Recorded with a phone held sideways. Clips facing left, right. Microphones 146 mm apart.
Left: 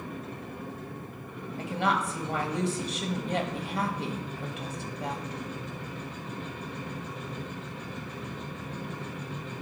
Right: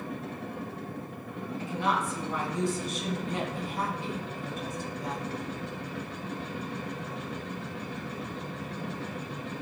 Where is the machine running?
70° right (ahead or behind), 1.5 m.